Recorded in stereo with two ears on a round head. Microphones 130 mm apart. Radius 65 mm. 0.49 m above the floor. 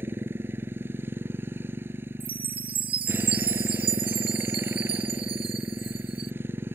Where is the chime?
35° right (ahead or behind).